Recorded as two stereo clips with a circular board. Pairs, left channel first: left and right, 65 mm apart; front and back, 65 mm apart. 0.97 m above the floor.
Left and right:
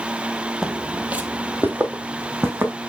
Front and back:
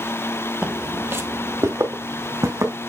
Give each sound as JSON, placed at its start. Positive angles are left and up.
{"t": 0.6, "sound": "footsteps", "azimuth_deg": -150, "distance_m": 1.0}